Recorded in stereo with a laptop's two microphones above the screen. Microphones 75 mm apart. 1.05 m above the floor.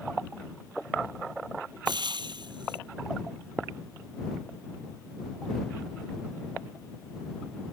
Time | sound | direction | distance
1.9 | frying | 80° right | ?